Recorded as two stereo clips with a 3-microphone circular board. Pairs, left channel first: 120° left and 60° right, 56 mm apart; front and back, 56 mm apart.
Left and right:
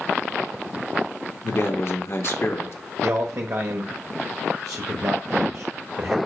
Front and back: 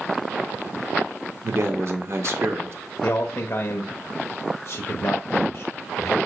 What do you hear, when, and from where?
1.4 s a man speaking: 150° left, 1.3 m
3.0 s a man speaking: 40° right, 0.9 m